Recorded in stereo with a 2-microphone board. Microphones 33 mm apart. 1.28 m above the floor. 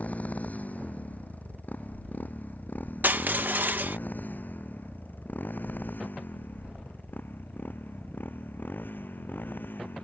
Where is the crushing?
80° right.